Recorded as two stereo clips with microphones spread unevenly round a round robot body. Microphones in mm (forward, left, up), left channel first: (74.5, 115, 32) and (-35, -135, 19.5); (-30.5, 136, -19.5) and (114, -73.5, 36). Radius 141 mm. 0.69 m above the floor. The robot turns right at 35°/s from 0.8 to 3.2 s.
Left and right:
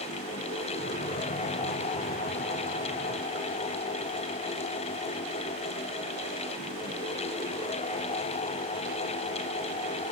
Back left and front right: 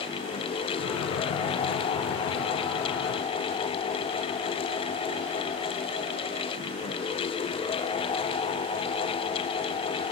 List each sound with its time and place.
Only background noise.